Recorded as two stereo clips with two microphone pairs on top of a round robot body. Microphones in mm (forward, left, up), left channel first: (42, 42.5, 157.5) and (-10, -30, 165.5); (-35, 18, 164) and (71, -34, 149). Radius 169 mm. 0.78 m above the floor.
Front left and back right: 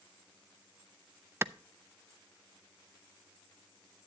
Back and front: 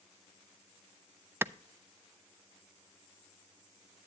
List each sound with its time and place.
1.4 s a clap: 70° right, 0.6 m